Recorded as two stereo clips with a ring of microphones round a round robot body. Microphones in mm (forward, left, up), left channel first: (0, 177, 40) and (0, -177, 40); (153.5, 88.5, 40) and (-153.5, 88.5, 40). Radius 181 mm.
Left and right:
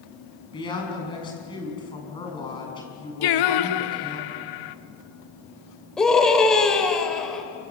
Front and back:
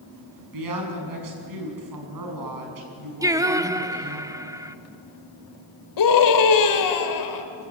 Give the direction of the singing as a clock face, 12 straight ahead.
9 o'clock.